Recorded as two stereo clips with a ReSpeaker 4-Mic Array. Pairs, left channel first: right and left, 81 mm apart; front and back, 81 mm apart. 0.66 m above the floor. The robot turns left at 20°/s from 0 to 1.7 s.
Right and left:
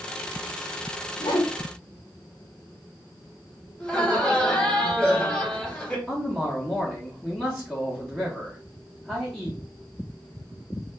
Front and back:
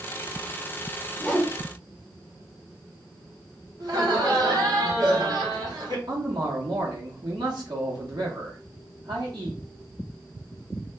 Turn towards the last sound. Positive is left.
turn(degrees=-175)